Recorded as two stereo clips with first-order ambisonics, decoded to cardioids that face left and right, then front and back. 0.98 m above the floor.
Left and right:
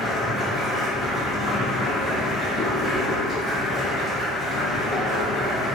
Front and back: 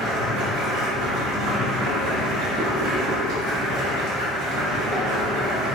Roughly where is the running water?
Behind.